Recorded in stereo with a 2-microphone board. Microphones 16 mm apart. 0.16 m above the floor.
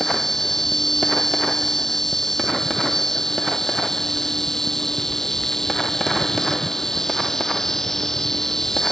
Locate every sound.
0.0 s an insect: 30° left (ahead or behind)